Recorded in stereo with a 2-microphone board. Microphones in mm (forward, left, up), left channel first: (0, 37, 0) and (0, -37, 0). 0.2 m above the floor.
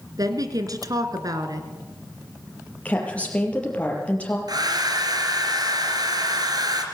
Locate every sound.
0.2 s a woman speaking: 55° right (ahead or behind), 2 m
2.9 s a woman speaking: 20° left (ahead or behind), 5 m
4.5 s a hair dryer: 65° right (ahead or behind), 2.5 m